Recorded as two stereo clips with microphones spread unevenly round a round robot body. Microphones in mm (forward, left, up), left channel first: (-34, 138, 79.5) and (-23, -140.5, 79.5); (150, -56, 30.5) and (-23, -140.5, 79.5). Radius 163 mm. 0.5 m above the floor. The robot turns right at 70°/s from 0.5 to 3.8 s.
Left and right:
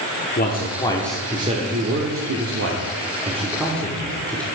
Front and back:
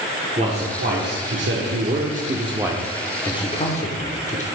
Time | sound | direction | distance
0.4 | a man speaking | 140° left | 1.2 m